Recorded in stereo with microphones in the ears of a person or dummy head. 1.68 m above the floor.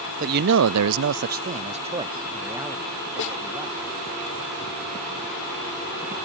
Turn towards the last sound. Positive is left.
turn(degrees=60)  # may be behind; listen again after turning